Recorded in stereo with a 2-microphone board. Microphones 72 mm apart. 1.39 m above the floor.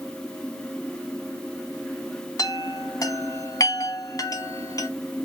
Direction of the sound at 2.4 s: 55° left (ahead or behind).